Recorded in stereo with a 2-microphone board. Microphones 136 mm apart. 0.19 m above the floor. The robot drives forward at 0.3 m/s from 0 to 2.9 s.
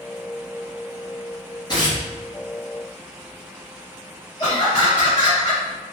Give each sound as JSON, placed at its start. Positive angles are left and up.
{"t": 1.7, "sound": "tearing paper", "side_deg": 30, "distance_m": 1.8}
{"t": 4.4, "sound": "laughter", "side_deg": 30, "distance_m": 1.8}